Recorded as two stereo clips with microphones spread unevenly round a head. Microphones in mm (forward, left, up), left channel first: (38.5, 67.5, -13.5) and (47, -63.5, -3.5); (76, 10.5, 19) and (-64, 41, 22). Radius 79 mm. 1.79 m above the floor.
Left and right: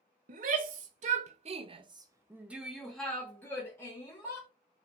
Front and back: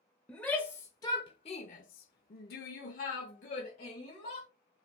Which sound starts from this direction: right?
A shout, at 0.3 s.